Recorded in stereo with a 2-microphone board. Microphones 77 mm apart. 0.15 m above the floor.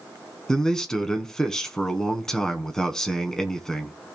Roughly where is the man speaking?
Centre.